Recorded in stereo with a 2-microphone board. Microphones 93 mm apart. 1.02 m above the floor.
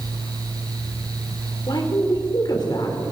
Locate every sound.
1.7 s a woman speaking: 50° left (ahead or behind), 3.5 m